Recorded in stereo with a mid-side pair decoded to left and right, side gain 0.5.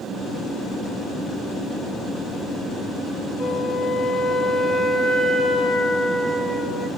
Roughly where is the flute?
Ahead left.